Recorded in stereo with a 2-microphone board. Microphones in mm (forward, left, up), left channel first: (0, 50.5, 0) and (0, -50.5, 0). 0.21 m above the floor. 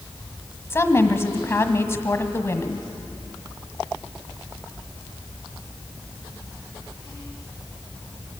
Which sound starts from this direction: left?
A woman speaking, at 0.7 s.